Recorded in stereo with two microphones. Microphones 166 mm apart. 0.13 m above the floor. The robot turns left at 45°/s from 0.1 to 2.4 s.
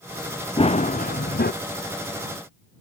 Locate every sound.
0.6 s running footsteps: 145° left; by 1.5 s 100° left